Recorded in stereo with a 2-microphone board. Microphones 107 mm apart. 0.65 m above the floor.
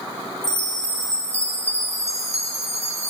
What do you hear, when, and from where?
0.4 s a chime: 80° right, 0.7 m